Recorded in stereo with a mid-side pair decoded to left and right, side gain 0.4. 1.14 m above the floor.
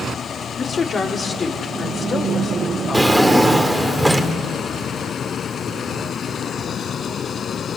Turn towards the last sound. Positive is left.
turn(degrees=-10)